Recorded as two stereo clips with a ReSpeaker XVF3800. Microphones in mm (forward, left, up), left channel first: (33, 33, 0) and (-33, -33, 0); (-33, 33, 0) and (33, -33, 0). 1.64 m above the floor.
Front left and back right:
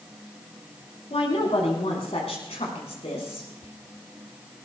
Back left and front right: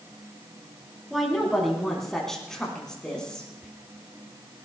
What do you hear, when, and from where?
1.1 s a woman speaking: 45° left, 5 m; by 3.5 s 55° left, 6 m
3.6 s whispering: 35° left, 0.8 m